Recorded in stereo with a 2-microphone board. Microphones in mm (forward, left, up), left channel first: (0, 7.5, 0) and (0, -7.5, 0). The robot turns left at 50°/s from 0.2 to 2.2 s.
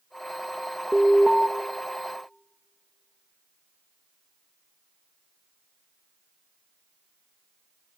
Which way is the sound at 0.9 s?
5° right (ahead or behind).